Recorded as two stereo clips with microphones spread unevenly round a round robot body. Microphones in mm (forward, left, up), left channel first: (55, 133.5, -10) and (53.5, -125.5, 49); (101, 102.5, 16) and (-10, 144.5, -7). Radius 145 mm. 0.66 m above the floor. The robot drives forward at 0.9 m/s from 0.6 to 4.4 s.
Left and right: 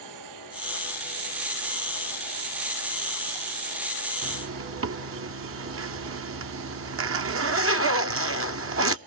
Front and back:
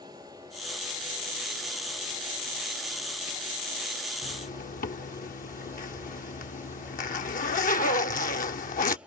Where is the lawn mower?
120° right; by 9.1 s 115° right.